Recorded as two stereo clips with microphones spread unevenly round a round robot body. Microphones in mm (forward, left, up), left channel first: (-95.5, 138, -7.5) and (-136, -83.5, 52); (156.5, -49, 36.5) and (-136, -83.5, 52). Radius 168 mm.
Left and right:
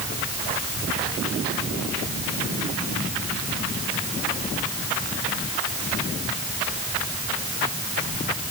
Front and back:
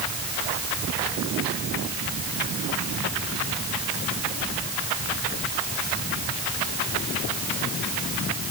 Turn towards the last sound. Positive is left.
No sound to turn to.